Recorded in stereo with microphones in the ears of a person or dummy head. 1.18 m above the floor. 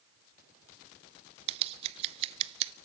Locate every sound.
1.5 s scissors: 35° right (ahead or behind), 0.6 m